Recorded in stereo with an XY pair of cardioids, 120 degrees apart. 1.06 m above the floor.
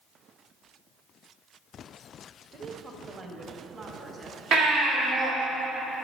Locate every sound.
2.5 s a woman speaking: 45° right, 1.0 m; by 4.4 s 35° right, 1.9 m
4.5 s a baby crying: 70° right, 1.8 m